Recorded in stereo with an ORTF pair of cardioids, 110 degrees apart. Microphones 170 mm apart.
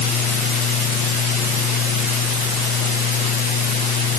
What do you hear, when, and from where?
0.0 s a fan: 60° left